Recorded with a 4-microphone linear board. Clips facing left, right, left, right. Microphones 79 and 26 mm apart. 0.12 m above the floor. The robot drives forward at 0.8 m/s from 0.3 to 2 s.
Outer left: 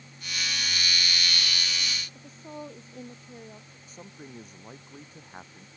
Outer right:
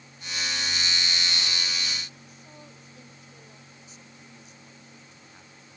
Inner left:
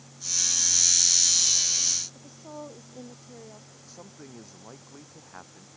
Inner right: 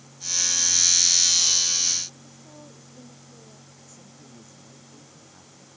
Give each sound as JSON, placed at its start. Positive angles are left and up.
{"t": 2.1, "sound": "a woman speaking", "side_deg": 35}
{"t": 3.9, "sound": "a man speaking", "side_deg": 45}